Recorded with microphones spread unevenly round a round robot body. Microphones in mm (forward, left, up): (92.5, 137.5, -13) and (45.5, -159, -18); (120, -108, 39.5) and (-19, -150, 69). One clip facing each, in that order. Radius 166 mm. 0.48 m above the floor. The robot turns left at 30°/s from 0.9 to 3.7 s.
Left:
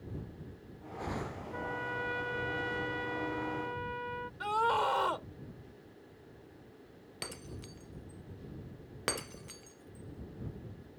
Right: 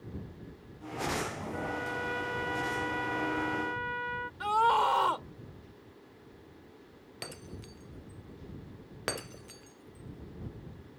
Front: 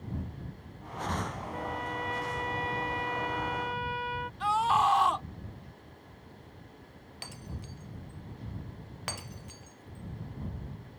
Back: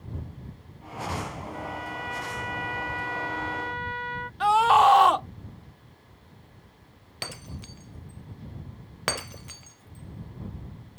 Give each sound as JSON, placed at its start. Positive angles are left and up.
{"t": 1.5, "sound": "a trumpet", "azimuth_deg": 10}
{"t": 4.4, "sound": "a scream", "azimuth_deg": 180}
{"t": 7.2, "sound": "breaking glass", "azimuth_deg": 165}